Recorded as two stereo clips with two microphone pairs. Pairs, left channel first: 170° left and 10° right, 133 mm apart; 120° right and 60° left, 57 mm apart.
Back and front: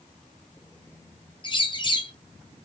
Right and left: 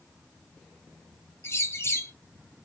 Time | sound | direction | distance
1.4 | a bird | 145° right | 0.5 m